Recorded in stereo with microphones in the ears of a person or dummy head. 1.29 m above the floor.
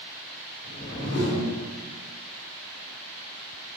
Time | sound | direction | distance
0.6 | a whoosh | 65° left (ahead or behind) | 2 m